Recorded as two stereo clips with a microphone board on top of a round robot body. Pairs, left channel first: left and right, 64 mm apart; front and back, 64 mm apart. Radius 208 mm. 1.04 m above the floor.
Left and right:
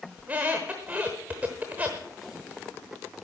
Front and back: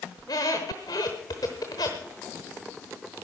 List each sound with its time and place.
0.2 s a squeak: 25° right, 0.8 m